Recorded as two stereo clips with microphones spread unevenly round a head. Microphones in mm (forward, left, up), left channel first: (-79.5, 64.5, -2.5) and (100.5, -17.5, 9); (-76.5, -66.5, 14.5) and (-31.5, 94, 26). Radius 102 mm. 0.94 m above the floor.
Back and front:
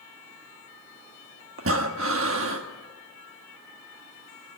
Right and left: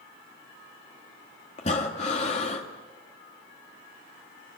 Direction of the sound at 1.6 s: 50° right.